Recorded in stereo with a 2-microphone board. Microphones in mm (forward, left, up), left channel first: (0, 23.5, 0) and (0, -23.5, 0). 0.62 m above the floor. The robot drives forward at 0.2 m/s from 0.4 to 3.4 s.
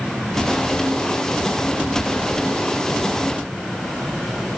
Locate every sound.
Only background noise.